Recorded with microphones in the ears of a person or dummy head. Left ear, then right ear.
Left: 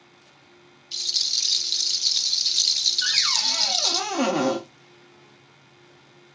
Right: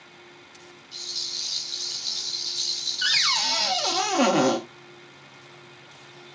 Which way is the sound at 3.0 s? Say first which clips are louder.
Right 5 dB; 10° right (ahead or behind).